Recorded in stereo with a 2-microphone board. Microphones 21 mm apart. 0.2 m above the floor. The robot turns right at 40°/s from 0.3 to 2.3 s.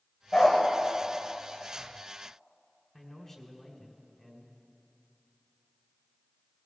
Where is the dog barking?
40° left (ahead or behind), 5 m; by 0.6 s 50° left (ahead or behind), 5 m.